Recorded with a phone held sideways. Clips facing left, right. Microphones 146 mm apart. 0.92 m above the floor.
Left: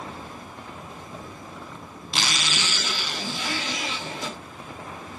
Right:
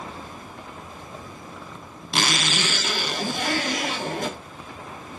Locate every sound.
2.1 s a zipper: 55° right (ahead or behind), 0.6 m